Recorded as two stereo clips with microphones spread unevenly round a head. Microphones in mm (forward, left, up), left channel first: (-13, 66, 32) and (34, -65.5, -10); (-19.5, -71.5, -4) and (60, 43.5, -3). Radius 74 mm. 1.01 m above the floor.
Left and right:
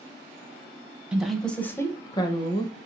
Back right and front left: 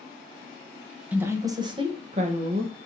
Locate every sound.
1.1 s a woman speaking: 15° right, 0.8 m; by 2.9 s 55° left, 1.2 m